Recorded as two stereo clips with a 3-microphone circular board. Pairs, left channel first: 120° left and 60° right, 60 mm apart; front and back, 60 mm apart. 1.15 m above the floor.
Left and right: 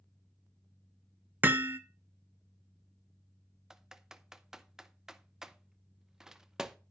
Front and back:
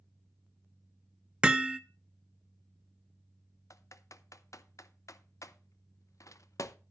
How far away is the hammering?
About 0.8 m.